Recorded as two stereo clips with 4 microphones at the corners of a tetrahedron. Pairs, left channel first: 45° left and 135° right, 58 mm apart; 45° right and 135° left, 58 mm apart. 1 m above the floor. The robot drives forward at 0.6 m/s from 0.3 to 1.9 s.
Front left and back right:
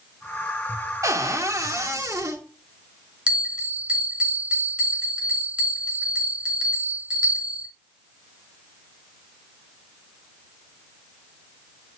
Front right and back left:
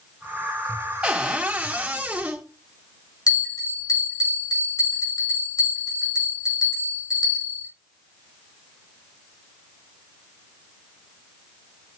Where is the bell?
60° right, 5.5 m.